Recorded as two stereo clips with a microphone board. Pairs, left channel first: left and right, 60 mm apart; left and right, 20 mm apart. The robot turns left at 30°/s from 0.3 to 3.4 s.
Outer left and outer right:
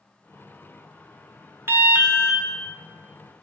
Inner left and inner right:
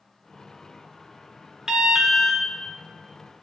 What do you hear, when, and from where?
1.7 s an alarm: 40° right (ahead or behind), 0.9 m; by 2.4 s 20° right (ahead or behind), 0.9 m